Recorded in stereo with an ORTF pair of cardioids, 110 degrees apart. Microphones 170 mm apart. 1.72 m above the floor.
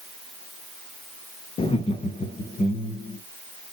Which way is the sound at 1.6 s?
30° left.